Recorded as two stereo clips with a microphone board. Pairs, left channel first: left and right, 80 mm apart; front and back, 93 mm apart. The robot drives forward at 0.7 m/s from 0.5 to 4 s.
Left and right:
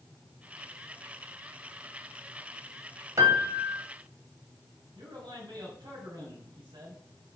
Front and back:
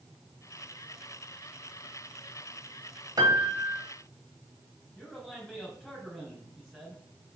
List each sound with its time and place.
3.2 s a piano: 135° right, 1.8 m; by 3.8 s 145° right, 2 m
5.0 s a man speaking: 80° right, 3 m